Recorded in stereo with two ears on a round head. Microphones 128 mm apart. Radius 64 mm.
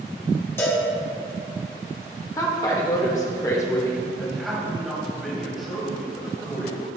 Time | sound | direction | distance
0.6 | a cowbell | 15° left (ahead or behind) | 1.4 m
2.4 | a woman speaking | 25° left (ahead or behind) | 1.0 m
4.2 | a man speaking | centre (ahead or behind) | 2 m